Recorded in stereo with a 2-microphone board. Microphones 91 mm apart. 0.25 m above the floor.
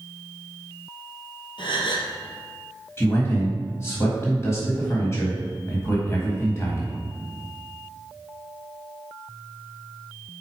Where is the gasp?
60° left (ahead or behind), 1.4 m.